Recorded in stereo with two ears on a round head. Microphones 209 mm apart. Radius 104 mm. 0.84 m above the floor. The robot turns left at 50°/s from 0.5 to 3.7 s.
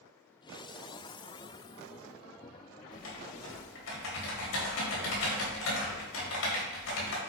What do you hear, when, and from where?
2.9 s typing on a keyboard: 105° left, 3 m; by 7.2 s 65° left, 3 m